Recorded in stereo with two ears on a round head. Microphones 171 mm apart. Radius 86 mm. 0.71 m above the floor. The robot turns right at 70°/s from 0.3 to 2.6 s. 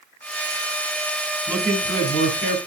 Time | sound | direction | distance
1.5 | a man speaking | 10° right | 3 m